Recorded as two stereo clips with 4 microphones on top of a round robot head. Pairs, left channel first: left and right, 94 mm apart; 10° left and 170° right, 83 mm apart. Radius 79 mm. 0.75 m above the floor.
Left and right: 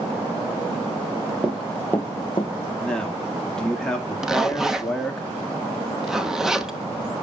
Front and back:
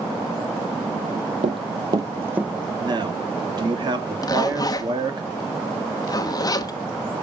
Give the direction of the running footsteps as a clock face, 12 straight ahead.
6 o'clock.